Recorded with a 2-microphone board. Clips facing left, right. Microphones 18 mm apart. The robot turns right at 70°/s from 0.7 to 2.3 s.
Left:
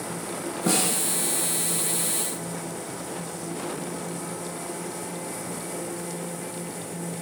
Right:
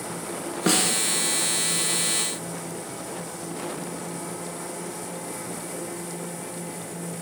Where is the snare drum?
60° right (ahead or behind), 0.6 m; by 0.9 s 70° right (ahead or behind), 0.6 m.